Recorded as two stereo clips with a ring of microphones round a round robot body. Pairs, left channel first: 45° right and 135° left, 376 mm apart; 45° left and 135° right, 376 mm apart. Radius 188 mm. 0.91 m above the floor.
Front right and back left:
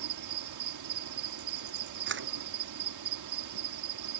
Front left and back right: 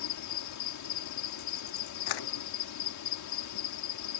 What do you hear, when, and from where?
0.0 s an insect: 90° left
2.1 s a camera shutter: 75° left